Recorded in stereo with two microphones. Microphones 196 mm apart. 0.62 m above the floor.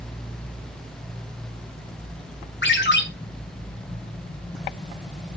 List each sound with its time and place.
2.6 s a ringtone: 70° left (ahead or behind), 2.5 m